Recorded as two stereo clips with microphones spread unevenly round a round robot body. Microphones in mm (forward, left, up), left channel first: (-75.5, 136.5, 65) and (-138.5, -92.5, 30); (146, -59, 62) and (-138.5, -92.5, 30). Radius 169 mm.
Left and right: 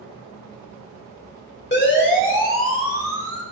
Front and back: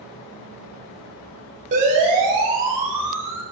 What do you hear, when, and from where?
1.7 s a siren: 120° left, 4.5 m; by 3.4 s 95° left, 5 m